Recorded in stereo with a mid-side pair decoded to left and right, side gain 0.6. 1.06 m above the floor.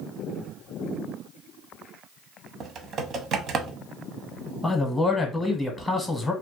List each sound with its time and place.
2.6 s typing on a keyboard: 50° right, 0.6 m
4.6 s a man speaking: 15° left, 0.8 m